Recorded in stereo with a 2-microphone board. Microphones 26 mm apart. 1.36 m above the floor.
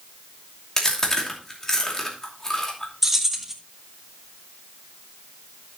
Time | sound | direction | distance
0.8 | chewing | 15° left (ahead or behind) | 2.5 m
3.0 | keys jangling | 10° right (ahead or behind) | 1.4 m